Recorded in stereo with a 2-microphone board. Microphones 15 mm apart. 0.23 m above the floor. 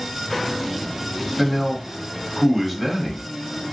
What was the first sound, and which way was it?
A man speaking, 15° left (ahead or behind).